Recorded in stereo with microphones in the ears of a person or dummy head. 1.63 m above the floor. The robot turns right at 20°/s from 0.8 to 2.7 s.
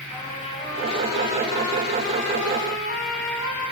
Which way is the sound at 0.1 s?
30° left.